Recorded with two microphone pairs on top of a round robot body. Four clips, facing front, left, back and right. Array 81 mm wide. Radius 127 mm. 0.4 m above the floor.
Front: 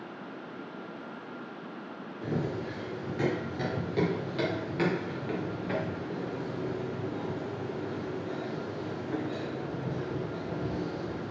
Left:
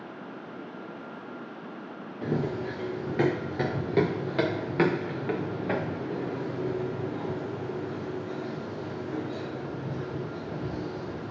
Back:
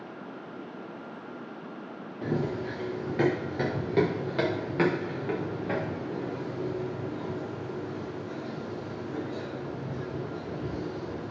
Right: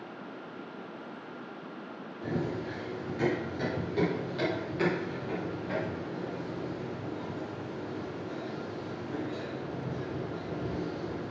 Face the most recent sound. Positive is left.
turn(degrees=0)